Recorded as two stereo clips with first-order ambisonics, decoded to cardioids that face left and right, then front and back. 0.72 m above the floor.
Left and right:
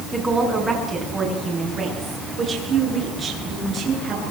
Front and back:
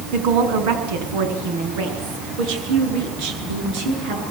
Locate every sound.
0.1 s a woman speaking: 170° right, 7.5 m; by 4.2 s 155° right, 11.5 m